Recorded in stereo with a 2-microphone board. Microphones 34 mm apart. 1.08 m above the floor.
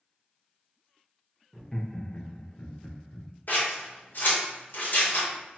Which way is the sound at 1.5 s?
5° left (ahead or behind).